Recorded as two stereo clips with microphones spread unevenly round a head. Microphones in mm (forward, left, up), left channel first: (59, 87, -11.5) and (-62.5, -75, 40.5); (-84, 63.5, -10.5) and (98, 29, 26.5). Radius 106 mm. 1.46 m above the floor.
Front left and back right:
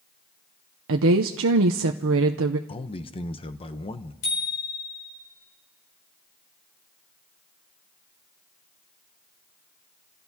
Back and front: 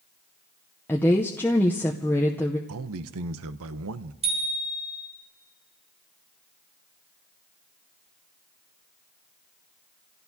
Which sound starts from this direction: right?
A woman speaking, at 0.9 s.